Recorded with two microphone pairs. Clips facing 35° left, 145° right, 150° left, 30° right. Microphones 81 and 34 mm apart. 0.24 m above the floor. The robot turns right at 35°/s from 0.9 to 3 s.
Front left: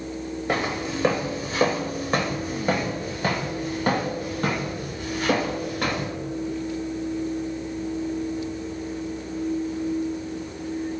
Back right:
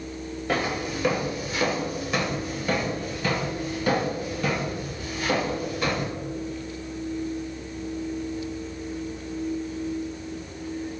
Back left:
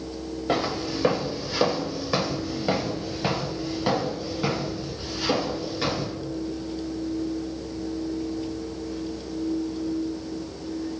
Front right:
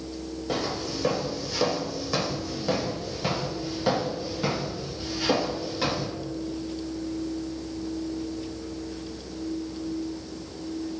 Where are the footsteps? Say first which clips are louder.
Even, back left 4 dB; 105° left, 0.8 m; by 6.1 s 60° left, 2.5 m.